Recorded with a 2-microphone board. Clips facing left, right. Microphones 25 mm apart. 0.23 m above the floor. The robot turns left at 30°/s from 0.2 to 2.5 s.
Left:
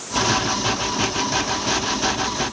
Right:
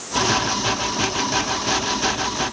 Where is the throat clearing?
I don't hear throat clearing.